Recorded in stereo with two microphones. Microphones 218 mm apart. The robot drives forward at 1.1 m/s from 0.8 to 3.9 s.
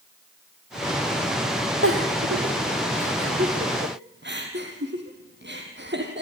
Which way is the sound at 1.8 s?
75° right (ahead or behind).